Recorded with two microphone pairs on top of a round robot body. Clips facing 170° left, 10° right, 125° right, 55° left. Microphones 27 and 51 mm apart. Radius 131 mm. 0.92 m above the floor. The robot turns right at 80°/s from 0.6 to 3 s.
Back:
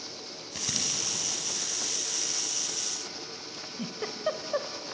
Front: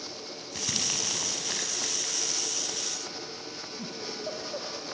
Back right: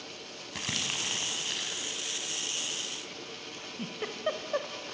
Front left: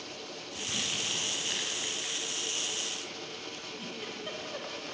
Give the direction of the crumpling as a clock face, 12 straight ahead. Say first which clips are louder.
Front 1 dB, back right 1 dB; 4 o'clock.